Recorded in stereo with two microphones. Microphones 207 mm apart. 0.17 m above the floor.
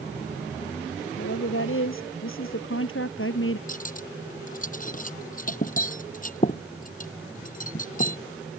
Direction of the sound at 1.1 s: 65° left (ahead or behind).